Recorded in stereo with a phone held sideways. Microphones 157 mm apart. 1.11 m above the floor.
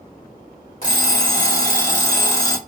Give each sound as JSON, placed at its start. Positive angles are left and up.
{"t": 0.8, "sound": "an alarm clock", "side_deg": 55, "distance_m": 1.6}